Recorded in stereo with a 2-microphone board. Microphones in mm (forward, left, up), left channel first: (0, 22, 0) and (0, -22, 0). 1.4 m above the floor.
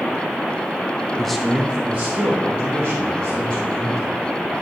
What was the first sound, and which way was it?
A man speaking, 15° left (ahead or behind).